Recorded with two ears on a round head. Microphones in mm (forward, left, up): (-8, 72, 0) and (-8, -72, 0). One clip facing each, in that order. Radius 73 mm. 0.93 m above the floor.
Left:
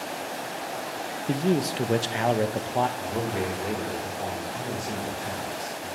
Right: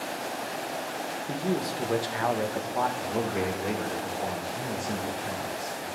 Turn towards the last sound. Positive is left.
turn(degrees=0)  # may be behind; listen again after turning